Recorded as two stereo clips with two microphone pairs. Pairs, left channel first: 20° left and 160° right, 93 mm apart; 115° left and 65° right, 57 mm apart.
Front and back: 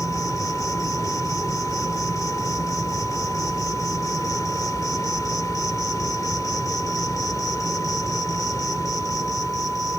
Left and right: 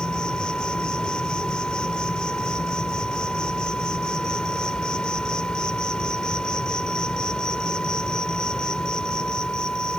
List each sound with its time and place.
0.0 s an insect: 45° left